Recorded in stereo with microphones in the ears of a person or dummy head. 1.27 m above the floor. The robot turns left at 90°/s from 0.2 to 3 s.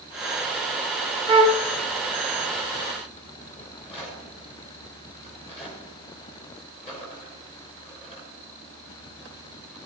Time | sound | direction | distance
1.3 | a flute | 20° right | 1.3 m
3.6 | a rattle | 30° left (ahead or behind) | 5.5 m